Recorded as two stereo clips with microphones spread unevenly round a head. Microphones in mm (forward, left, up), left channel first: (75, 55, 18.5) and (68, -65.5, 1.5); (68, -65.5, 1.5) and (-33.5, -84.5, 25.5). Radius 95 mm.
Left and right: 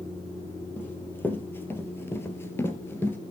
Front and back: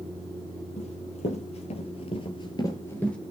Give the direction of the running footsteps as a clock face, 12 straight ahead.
11 o'clock.